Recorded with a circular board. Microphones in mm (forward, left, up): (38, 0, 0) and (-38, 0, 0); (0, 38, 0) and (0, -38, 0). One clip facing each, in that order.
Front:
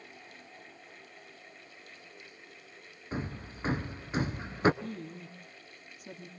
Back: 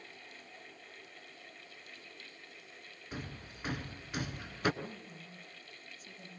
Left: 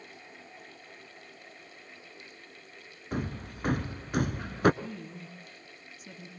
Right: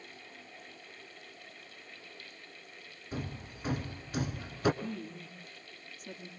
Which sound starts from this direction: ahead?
A woman speaking, at 4.8 s.